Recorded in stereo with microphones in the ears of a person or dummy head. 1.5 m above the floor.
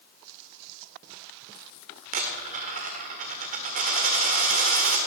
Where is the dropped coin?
35° right (ahead or behind), 1.5 m.